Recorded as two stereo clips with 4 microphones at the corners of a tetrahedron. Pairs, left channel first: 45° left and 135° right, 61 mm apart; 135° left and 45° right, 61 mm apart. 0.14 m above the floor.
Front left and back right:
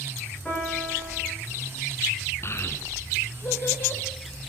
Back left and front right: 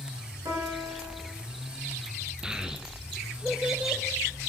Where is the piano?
30° right, 7.5 m.